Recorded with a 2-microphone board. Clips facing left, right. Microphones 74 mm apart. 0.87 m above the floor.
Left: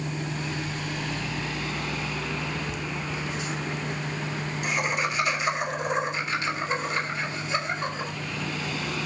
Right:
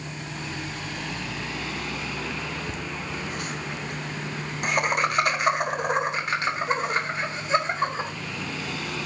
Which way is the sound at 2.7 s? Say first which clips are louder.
Left 1 dB; 35° right (ahead or behind).